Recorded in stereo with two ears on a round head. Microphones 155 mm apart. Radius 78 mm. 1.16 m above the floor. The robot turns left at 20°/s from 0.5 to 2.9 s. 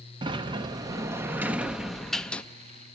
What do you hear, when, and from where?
0.2 s a sliding door: 150° right, 0.7 m; by 2.4 s 170° left, 0.7 m